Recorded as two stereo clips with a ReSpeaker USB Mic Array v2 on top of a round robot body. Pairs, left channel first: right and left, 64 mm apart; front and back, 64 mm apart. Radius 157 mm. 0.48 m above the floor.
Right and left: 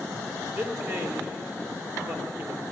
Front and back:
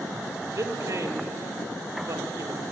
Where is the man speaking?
140° left, 2.5 m.